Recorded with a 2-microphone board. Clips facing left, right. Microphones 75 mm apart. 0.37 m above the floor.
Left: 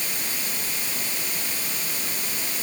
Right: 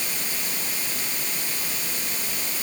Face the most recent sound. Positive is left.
No sound to turn to.